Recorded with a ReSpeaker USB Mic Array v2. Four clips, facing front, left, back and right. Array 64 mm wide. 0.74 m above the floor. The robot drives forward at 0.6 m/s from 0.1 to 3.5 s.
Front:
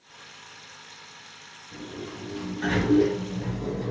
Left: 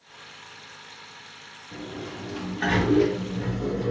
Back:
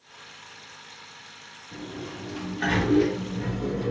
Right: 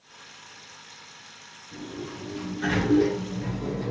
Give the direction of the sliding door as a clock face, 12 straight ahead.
8 o'clock.